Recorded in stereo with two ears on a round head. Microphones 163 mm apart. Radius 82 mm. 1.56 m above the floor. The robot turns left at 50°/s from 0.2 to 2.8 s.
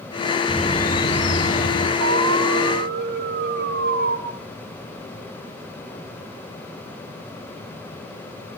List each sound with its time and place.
0.5 s a bird: 150° left, 3 m; by 1.9 s 75° left, 3 m
2.0 s an alarm: 75° right, 5.5 m; by 4.2 s 115° right, 5.5 m